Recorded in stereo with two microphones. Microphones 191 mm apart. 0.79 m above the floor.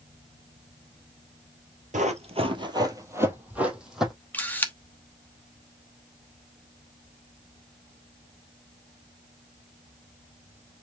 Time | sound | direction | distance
1.9 | running footsteps | 40° right (ahead or behind) | 1.3 m
4.3 | a camera shutter | 10° left (ahead or behind) | 1.0 m